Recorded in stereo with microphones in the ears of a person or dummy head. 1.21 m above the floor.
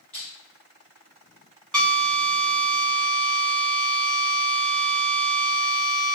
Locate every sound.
0.1 s crushing: 5° left (ahead or behind), 1.9 m
1.7 s a drill: 5° left (ahead or behind), 1.8 m